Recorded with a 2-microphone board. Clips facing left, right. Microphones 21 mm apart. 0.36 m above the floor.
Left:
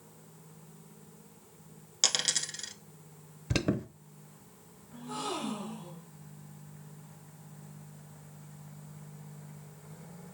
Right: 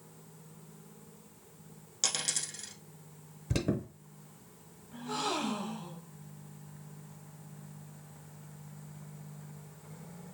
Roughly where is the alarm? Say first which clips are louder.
Left 2 dB; left.